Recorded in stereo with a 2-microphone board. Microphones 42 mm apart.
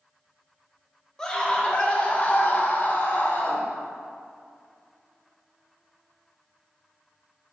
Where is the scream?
15° left (ahead or behind), 1.7 m; by 3.6 s 55° left (ahead or behind), 2.5 m.